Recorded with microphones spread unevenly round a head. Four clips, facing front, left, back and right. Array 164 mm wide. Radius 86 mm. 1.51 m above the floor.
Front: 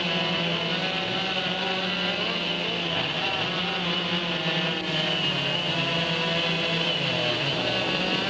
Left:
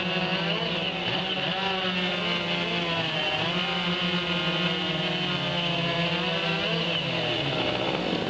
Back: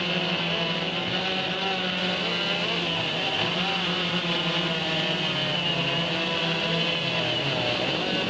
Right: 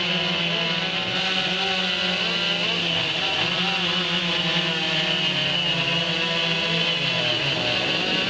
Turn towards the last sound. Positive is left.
No sound to turn to.